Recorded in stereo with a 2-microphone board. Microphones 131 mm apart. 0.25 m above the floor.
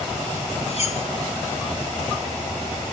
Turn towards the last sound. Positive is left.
turn(degrees=55)  # may be behind; listen again after turning